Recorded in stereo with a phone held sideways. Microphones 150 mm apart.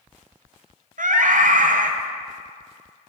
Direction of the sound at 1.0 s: 70° right (ahead or behind).